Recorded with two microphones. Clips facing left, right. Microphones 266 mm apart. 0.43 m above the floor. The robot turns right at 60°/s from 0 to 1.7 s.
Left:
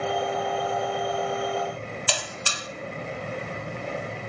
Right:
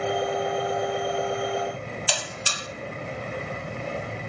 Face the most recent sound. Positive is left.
turn(degrees=60)  # may be behind; listen again after turning